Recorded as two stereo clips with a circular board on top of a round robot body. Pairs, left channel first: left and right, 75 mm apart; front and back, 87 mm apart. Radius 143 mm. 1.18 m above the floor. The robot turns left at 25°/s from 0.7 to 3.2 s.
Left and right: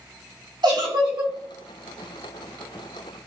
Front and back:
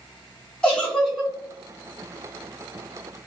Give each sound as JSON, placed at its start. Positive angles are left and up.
{"t": 0.6, "sound": "a giggle", "azimuth_deg": -80, "distance_m": 1.9}